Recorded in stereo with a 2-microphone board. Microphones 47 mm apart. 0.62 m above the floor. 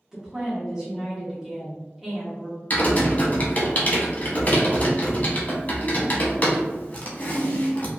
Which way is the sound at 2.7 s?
35° left (ahead or behind).